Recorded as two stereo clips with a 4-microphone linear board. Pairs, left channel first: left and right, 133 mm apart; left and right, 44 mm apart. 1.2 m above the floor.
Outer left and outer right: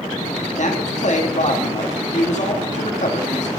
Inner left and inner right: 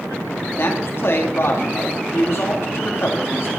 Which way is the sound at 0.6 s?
65° left (ahead or behind).